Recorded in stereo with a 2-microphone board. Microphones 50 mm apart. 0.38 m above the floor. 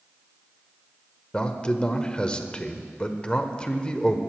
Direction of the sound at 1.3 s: 20° left (ahead or behind).